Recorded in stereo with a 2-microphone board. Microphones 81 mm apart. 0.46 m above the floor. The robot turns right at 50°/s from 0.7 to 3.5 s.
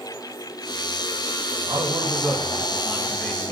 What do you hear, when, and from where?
1.7 s a man speaking: 60° right, 4 m; by 3.5 s 30° left, 4 m